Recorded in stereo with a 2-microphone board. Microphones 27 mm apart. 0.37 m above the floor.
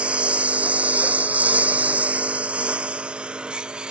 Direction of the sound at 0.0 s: 50° right (ahead or behind).